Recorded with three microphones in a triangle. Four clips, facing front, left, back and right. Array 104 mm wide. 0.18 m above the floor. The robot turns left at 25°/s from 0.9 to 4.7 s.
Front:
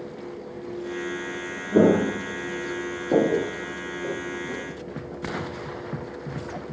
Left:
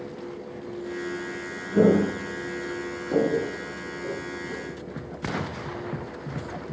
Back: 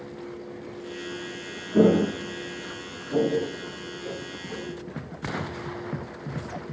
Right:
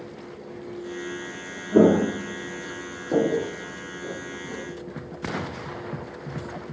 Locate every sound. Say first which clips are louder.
1.7 s footsteps: right 2 dB, front 1 dB; 55° right, 1.0 m; by 4.6 s 10° right, 1.6 m